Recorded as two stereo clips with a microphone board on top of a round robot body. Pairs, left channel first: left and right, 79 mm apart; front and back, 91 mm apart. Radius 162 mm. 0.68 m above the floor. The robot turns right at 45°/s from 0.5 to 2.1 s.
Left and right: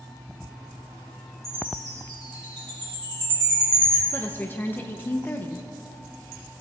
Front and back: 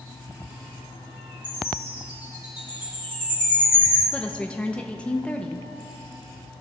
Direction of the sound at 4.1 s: 65° left.